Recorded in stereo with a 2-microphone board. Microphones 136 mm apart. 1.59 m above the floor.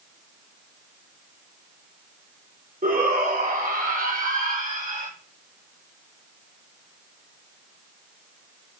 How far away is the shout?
About 4.5 m.